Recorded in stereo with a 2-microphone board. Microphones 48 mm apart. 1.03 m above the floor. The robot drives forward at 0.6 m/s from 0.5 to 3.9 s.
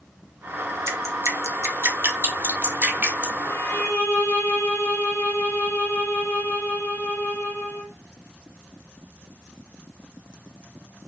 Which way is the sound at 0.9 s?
80° right.